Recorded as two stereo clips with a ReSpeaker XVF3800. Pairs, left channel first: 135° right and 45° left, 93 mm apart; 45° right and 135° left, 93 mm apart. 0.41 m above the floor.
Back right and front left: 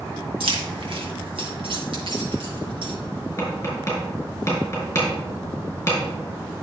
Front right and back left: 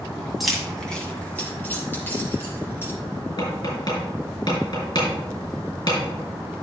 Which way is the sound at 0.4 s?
45° left.